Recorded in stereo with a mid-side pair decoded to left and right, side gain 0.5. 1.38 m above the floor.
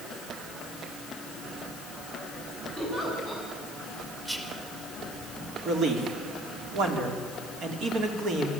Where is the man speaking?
65° right, 3.5 m.